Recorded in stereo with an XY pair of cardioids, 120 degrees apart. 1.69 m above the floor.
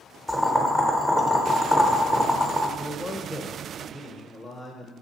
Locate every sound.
0.3 s boiling: 5° left, 0.6 m
2.8 s a man speaking: 15° left, 0.6 m